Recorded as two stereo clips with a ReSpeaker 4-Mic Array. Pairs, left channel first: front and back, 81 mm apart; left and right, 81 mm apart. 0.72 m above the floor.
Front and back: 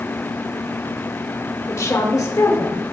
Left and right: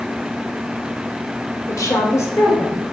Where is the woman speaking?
50° left, 2 m; by 2.8 s 30° left, 3.5 m.